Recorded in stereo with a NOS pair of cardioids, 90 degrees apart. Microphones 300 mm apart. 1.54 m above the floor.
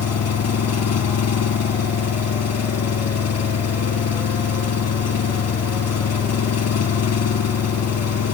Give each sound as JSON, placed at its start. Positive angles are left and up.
{"t": 0.0, "sound": "an engine running", "azimuth_deg": 55}